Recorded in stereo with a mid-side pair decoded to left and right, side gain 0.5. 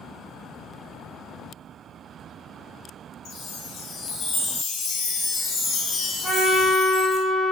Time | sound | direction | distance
3.2 | a chime | 65° left | 0.7 m
6.2 | a trumpet | 20° right | 1.5 m